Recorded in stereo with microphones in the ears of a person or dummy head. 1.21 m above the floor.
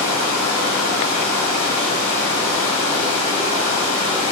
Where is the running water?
45° left (ahead or behind), 0.9 m.